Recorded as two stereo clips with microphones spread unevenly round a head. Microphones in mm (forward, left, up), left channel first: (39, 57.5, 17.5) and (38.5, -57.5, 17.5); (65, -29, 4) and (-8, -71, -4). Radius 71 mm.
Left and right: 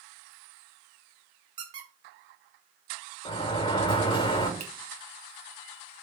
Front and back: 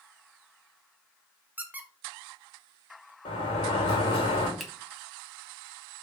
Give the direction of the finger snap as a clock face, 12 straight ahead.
2 o'clock.